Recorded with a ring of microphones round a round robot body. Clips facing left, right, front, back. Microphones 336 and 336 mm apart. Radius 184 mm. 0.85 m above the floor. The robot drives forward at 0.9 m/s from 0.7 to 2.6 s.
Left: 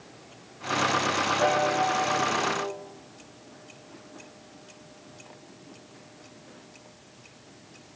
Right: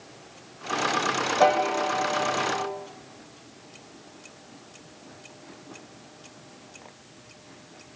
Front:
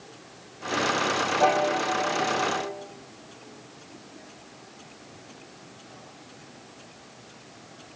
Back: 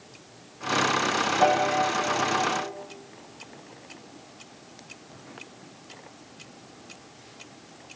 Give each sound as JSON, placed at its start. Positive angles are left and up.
{"t": 1.4, "sound": "a piano", "azimuth_deg": -120, "distance_m": 0.7}